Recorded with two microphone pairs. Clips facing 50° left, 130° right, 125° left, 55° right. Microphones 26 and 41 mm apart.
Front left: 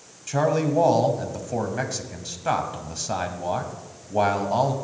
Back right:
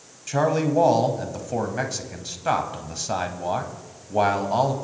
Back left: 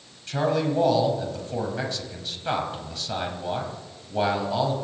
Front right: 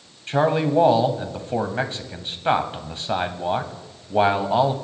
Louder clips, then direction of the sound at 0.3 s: Even, front right 4 dB; 55° right.